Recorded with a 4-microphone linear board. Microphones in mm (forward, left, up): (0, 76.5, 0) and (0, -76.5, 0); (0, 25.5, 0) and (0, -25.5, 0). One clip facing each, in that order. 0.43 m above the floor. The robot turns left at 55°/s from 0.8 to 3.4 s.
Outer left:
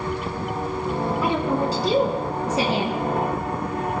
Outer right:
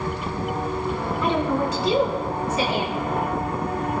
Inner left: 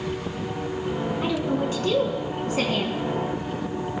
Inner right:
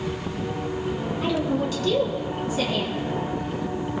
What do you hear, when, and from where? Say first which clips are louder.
1.2 s a woman speaking: outer right 2 dB, inner right 2 dB; 175° left, 4 m; by 3.0 s 75° left, 4 m